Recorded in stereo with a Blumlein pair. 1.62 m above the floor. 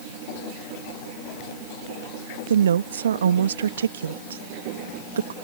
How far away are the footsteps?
No footsteps in this recording.